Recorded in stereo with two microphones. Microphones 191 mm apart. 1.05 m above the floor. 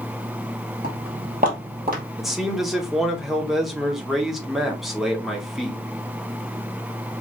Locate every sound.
0.8 s footsteps: 50° right (ahead or behind), 2 m; by 2.0 s 45° right (ahead or behind), 1.4 m
2.2 s a man speaking: centre (ahead or behind), 1.0 m